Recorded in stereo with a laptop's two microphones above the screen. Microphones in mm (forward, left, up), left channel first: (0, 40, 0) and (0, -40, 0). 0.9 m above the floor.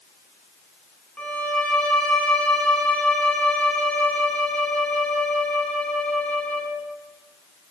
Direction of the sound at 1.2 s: 15° left (ahead or behind).